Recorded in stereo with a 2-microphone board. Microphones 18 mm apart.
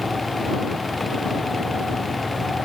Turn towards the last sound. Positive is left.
No sound to turn to.